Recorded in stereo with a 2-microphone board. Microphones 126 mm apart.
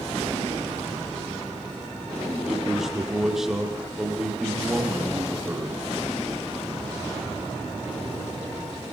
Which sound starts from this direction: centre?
A man speaking, at 2.5 s.